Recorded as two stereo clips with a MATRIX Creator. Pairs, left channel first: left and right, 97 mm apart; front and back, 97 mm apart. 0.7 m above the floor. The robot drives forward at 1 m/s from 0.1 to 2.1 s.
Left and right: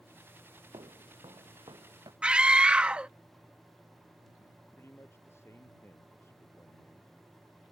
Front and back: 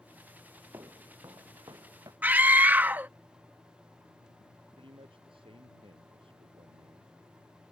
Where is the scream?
150° right.